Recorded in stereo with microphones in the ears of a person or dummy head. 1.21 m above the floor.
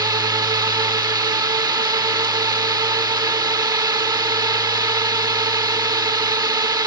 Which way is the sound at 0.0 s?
20° right (ahead or behind).